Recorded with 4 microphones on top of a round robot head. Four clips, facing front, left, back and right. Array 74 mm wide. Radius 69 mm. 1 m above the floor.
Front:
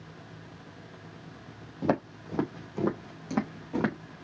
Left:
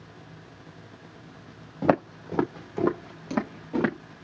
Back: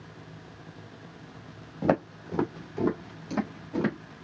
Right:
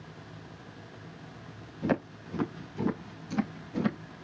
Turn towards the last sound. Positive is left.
turn(degrees=60)